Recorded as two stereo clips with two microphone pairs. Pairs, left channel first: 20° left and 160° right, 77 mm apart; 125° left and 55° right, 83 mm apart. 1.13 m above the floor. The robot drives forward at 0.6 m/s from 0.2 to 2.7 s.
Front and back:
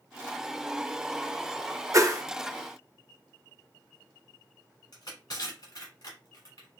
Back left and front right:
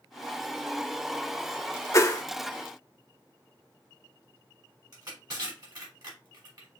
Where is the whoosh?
170° left, 0.7 m; by 2.2 s 175° left, 0.9 m.